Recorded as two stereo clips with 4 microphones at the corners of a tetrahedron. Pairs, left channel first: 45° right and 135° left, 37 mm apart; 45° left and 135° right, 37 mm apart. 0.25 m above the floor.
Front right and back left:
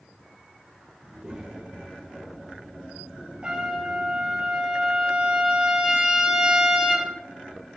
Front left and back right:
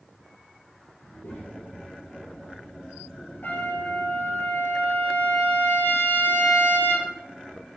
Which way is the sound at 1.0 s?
60° left.